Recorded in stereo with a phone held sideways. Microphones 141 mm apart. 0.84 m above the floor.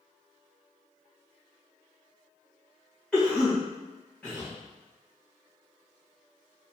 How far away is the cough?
About 1.5 m.